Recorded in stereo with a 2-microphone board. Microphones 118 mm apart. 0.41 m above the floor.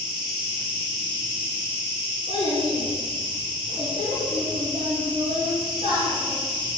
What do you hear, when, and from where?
0.0 s an insect: 45° right (ahead or behind), 4 m
2.3 s a child speaking: 60° right (ahead or behind), 3.5 m